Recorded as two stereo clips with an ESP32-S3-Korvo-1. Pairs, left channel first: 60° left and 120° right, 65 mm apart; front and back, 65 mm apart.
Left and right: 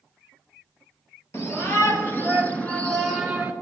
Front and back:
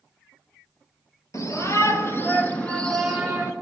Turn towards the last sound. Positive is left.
turn(degrees=180)